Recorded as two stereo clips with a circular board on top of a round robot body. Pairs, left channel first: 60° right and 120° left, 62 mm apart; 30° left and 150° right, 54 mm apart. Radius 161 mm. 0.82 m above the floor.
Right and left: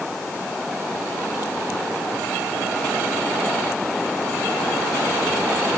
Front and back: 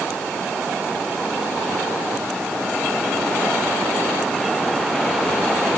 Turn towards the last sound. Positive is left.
No sound to turn to.